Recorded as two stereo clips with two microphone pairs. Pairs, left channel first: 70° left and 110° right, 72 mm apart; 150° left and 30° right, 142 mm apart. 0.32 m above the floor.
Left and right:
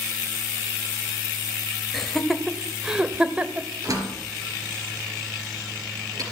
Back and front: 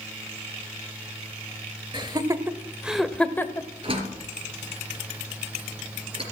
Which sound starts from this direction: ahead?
Laughter, at 1.9 s.